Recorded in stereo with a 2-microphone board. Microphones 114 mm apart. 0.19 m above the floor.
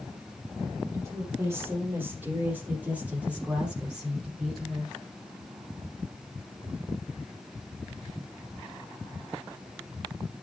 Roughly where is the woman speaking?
Right.